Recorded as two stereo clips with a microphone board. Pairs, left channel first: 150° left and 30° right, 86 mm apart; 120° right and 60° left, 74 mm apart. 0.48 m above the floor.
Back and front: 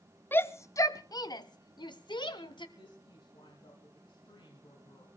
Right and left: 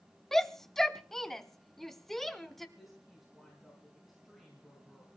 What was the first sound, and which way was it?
A shout, 160° left.